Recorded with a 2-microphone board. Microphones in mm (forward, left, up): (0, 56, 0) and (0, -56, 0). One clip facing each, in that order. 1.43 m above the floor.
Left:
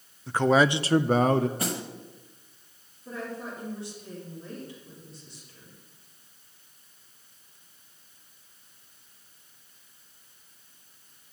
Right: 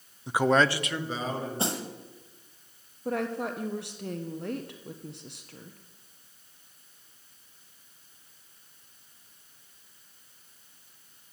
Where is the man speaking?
20° right (ahead or behind), 0.7 m; by 1.5 s 70° left (ahead or behind), 0.9 m.